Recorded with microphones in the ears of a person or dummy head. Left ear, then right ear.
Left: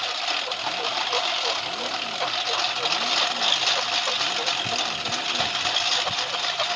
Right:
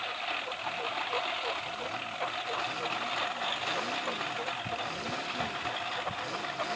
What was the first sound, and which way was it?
A lawn mower, 85° left.